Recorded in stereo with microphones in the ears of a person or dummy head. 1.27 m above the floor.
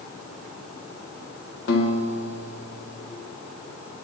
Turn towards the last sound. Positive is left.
turn(degrees=60)  # may be behind; listen again after turning